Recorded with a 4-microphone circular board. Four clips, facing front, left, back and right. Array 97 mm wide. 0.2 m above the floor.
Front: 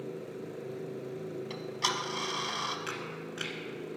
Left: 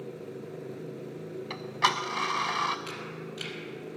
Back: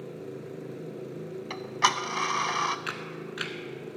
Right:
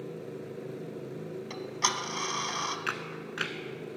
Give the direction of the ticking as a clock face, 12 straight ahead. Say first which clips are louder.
Left 5 dB, back 10 dB; 7 o'clock.